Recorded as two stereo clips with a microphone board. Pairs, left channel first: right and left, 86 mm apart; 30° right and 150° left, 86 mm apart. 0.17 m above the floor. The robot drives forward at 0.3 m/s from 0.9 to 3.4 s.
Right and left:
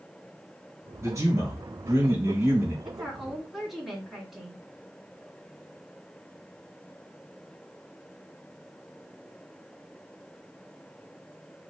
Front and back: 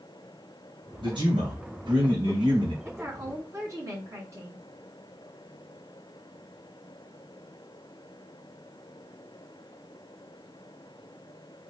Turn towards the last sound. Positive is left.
turn(degrees=175)